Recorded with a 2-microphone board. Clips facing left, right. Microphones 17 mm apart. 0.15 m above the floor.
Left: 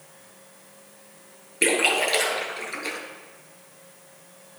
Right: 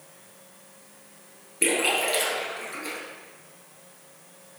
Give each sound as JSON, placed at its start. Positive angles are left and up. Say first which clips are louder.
{"t": 1.6, "sound": "a splash", "louder": "left 3 dB", "side_deg": 35, "distance_m": 2.0}